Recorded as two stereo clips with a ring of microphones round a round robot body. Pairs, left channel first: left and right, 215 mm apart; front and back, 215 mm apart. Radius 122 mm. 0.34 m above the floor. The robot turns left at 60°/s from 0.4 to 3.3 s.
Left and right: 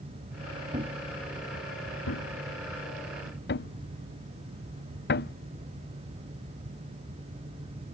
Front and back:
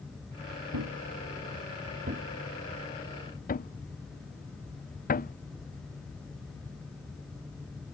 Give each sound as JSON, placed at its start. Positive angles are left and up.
{"t": 0.7, "sound": "a thud", "azimuth_deg": -155}